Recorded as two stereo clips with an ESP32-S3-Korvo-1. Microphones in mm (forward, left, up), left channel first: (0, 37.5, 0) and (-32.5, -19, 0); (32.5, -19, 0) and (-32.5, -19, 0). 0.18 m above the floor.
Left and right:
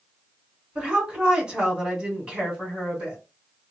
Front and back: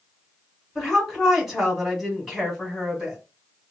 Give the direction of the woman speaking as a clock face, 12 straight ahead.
3 o'clock.